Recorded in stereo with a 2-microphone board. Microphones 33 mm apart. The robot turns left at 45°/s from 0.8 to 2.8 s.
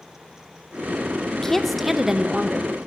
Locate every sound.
1.3 s a woman speaking: 25° left, 0.7 m; by 2.7 s 40° right, 0.7 m